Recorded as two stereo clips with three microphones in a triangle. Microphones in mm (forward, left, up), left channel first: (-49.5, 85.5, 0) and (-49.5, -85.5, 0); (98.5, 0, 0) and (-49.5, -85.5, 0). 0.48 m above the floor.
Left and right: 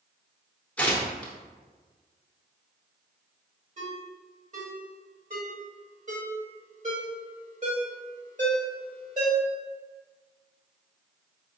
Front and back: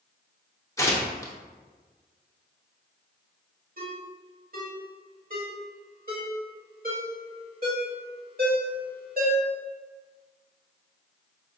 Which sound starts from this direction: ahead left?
Tearing paper, at 0.8 s.